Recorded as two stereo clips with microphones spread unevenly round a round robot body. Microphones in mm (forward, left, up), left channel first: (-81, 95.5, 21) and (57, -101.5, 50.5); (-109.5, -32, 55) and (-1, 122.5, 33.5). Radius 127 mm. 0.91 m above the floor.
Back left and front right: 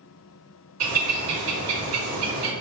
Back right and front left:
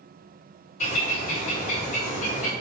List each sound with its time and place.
0.8 s a bird: 70° right, 1.7 m